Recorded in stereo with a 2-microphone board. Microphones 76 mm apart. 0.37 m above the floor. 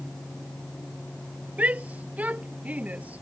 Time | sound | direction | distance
1.6 | a shout | 20° right (ahead or behind) | ?